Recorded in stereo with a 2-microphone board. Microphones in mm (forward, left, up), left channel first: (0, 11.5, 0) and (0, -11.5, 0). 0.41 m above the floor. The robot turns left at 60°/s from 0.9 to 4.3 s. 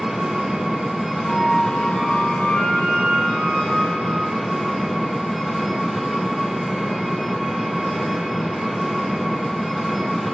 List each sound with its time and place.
0.0 s an engine running: 155° right, 2.5 m; by 10.3 s straight ahead, 2.5 m
1.2 s a flute: 25° right, 4.5 m; by 4.2 s 155° left, 4.5 m